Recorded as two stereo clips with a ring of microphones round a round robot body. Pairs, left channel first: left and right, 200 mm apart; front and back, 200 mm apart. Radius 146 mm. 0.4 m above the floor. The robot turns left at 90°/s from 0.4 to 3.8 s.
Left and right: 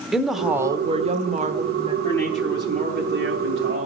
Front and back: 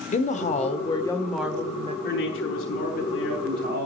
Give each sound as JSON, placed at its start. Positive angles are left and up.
{"t": 0.1, "sound": "a woman speaking", "azimuth_deg": -5, "distance_m": 1.6}
{"t": 2.0, "sound": "a man speaking", "azimuth_deg": 25, "distance_m": 4.5}